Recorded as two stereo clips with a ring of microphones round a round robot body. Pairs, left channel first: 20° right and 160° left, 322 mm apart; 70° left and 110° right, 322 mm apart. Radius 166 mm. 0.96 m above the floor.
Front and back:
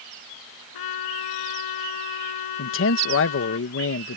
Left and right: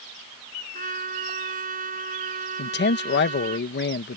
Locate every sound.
0.7 s a trumpet: 45° right
2.6 s a man speaking: 15° left